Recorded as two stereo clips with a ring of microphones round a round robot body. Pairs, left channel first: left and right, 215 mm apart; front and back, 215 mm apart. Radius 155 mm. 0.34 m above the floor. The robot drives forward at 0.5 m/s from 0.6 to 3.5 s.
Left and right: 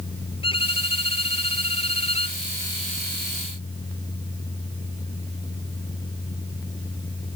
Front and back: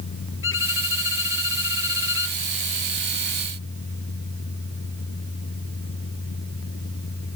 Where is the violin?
25° left.